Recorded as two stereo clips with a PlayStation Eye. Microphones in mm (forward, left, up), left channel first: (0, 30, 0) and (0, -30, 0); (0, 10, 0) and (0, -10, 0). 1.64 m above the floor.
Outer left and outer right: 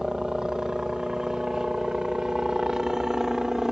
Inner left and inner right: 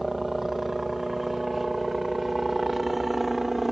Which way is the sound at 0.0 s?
10° right (ahead or behind).